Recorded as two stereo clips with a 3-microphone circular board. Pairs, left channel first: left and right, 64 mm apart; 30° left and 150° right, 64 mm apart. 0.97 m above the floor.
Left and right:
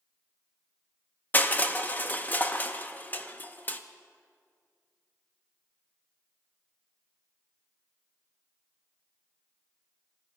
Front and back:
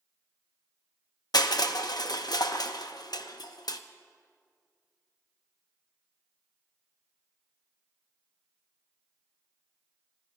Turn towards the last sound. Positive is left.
turn(degrees=30)